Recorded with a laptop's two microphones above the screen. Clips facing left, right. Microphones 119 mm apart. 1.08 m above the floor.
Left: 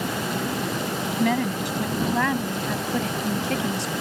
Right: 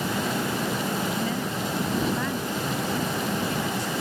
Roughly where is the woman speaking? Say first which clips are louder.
Left 5 dB; left.